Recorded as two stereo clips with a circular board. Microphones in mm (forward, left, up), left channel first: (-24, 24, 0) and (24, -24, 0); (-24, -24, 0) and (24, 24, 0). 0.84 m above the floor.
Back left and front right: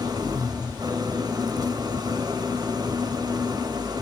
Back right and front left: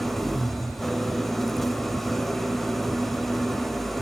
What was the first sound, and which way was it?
An engine running, 50° right.